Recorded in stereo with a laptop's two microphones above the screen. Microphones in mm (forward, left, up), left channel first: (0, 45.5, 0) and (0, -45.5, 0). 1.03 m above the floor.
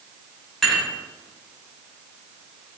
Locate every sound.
0.6 s dishes clattering: 5° left (ahead or behind), 2.5 m